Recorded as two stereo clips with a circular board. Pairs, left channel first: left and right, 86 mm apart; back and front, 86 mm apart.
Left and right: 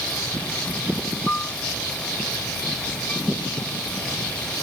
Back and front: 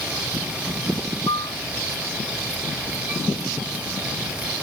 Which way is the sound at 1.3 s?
165° left.